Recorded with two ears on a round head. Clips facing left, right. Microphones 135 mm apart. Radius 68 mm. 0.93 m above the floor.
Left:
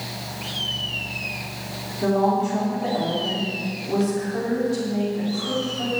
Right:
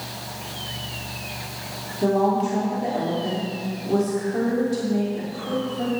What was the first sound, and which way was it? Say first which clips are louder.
A woman speaking: even; 15° right (ahead or behind).